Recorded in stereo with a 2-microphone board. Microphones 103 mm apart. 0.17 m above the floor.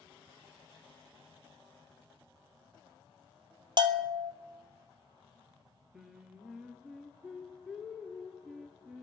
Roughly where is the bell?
Right.